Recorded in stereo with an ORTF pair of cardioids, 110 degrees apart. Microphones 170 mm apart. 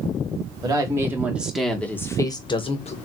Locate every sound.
0.6 s a woman speaking: 20° right, 1.7 m; by 3.0 s 40° left, 1.5 m